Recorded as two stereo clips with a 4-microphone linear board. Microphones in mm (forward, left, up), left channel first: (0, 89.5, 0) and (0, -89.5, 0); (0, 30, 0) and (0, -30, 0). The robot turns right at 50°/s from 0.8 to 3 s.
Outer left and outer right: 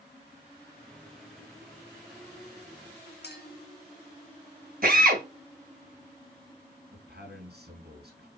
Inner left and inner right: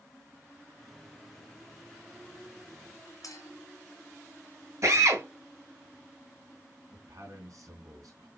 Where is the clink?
70° left (ahead or behind), 2.5 m.